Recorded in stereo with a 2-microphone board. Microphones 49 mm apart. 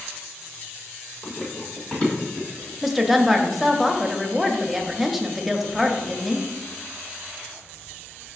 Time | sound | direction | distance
1.2 | running footsteps | 30° left (ahead or behind) | 1.7 m
2.8 | a woman speaking | 5° right (ahead or behind) | 0.5 m